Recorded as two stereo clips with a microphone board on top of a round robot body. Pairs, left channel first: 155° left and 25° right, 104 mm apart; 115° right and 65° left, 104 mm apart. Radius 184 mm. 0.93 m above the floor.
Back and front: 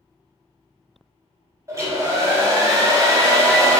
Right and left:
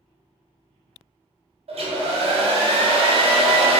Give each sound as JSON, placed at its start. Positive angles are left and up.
{"t": 1.7, "sound": "a hair dryer", "azimuth_deg": 40, "distance_m": 0.7}